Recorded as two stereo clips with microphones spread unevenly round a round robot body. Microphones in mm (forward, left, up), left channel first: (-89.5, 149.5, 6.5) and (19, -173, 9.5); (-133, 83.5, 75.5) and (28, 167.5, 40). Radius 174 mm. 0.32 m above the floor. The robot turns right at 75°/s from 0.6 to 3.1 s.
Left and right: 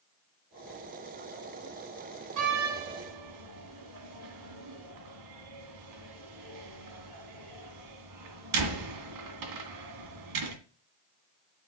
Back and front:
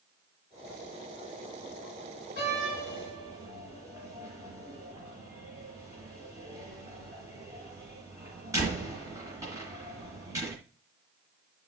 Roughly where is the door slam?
Right.